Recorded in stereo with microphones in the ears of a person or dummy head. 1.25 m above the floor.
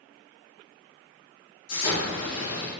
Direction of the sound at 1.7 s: 80° left.